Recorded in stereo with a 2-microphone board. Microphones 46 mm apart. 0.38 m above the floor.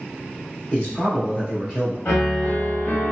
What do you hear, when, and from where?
0.7 s a man speaking: 25° left (ahead or behind), 1.4 m
2.0 s a piano: 50° left (ahead or behind), 1.0 m